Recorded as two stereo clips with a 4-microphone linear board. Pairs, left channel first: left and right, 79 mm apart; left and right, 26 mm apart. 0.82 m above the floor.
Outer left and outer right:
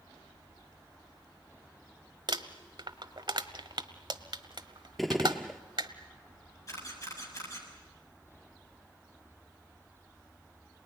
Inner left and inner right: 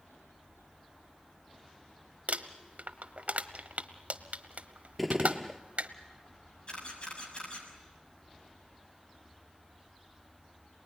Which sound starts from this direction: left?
A camera shutter, at 6.7 s.